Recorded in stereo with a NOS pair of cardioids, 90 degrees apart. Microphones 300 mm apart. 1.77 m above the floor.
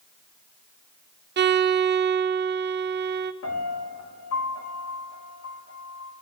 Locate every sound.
1.4 s a violin: 35° right, 0.8 m
3.4 s a piano: 60° left, 3.5 m